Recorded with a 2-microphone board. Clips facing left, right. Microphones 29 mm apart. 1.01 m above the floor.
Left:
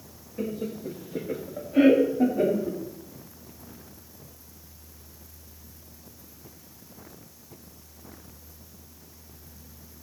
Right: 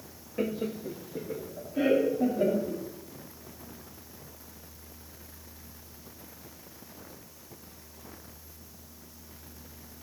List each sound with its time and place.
0.4 s laughter: 30° right (ahead or behind), 1.1 m; by 2.8 s 75° left (ahead or behind), 2.5 m